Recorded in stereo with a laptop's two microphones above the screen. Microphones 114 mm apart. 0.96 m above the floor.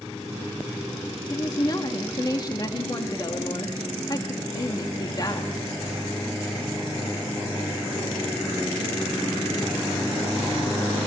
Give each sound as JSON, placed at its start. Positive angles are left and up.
{"t": 1.3, "sound": "a woman speaking", "side_deg": 35, "distance_m": 1.4}